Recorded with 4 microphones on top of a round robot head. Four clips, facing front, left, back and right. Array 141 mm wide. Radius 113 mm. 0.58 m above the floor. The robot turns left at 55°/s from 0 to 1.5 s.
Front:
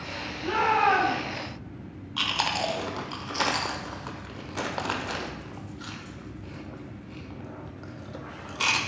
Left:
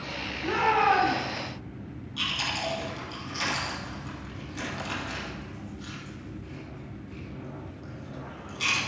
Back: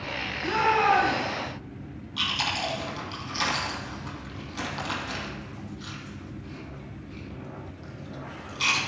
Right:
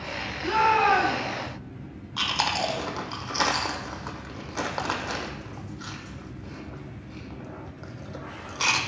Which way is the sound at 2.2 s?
55° right.